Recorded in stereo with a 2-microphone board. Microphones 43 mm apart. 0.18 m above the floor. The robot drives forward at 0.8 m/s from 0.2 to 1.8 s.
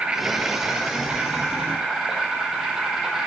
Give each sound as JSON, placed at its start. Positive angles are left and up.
{"t": 0.0, "sound": "an insect", "side_deg": -25, "distance_m": 1.1}